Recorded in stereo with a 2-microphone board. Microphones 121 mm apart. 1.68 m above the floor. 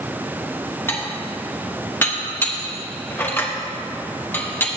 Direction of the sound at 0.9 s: 20° left (ahead or behind).